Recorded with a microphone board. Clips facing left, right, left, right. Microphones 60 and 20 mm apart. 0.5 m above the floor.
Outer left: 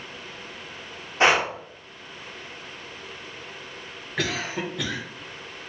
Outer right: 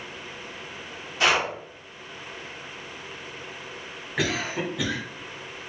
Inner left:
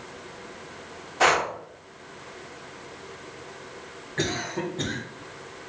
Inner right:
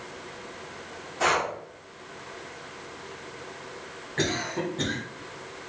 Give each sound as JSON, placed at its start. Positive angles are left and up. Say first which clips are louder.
{"t": 1.2, "sound": "breathing", "louder": "outer left 3 dB, inner left 3 dB", "side_deg": 35, "distance_m": 0.8}
{"t": 4.2, "sound": "a cough", "louder": "outer right 1 dB, even", "side_deg": -5, "distance_m": 1.3}